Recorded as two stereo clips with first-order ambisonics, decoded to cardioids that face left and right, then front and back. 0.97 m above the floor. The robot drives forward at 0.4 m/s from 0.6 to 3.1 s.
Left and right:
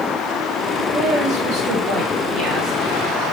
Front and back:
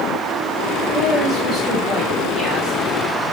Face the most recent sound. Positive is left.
turn(degrees=-130)